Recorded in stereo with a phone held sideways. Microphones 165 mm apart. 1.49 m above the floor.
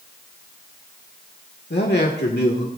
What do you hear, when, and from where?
1.7 s a man speaking: 90° left, 1.7 m